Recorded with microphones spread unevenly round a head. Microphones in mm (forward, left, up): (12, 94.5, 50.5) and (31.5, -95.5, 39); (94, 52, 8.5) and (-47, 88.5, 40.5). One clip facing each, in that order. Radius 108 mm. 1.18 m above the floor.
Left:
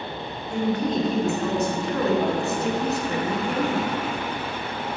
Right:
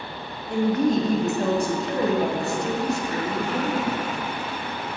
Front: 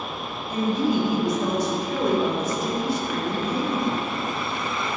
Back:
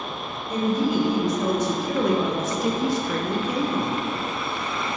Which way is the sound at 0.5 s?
120° right.